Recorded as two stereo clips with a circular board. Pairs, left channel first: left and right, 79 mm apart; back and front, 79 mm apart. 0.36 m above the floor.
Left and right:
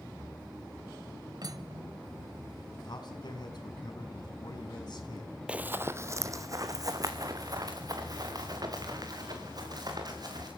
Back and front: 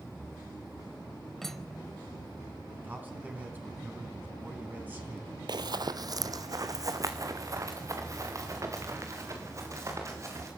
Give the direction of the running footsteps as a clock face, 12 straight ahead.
12 o'clock.